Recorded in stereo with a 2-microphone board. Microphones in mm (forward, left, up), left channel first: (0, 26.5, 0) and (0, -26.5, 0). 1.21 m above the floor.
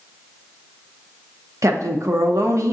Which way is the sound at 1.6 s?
70° right (ahead or behind).